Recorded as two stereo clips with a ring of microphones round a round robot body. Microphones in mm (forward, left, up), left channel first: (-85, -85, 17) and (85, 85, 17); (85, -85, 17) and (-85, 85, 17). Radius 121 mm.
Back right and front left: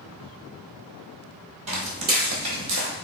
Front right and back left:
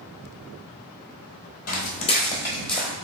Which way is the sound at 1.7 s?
10° right.